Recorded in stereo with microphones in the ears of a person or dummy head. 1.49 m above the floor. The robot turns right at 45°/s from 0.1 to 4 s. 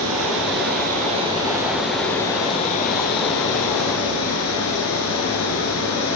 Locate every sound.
0.0 s running water: 80° right, 9.5 m; by 6.2 s 95° left, 9.5 m